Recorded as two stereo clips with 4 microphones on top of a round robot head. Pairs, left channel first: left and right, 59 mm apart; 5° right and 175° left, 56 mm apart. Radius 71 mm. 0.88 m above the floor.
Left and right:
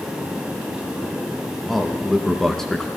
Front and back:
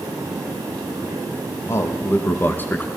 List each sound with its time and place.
1.7 s a man speaking: straight ahead, 1.4 m; by 2.9 s 20° left, 1.0 m